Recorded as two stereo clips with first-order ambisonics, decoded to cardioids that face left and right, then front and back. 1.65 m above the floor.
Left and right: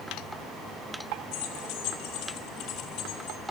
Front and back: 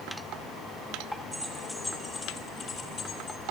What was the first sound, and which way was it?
Keys jangling, 95° left.